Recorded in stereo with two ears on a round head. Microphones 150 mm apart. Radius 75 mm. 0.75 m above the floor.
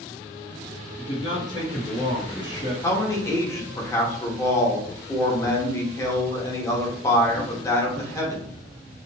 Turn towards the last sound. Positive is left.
turn(degrees=20)  # may be behind; listen again after turning